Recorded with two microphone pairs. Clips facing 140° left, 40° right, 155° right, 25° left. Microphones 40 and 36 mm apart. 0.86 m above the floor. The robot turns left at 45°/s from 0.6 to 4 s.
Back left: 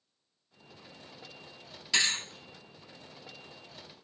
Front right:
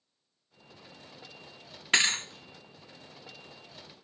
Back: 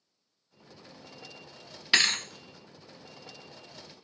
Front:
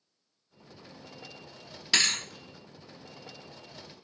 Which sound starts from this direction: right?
A thud, at 1.9 s.